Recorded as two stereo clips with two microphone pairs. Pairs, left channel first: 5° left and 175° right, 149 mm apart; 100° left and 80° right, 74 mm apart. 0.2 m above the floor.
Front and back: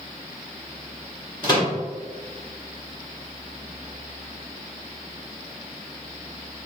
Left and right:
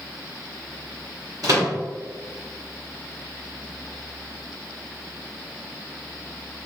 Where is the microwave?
50° right, 1.8 m.